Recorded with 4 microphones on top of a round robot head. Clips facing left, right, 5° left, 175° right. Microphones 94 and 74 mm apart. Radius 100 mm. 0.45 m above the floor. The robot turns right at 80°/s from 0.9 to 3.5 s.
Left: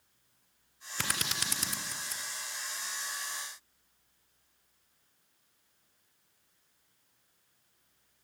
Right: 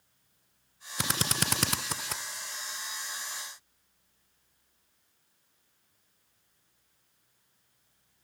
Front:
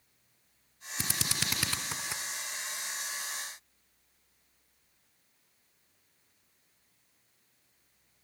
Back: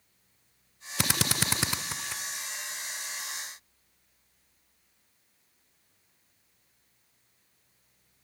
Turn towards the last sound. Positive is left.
turn(degrees=40)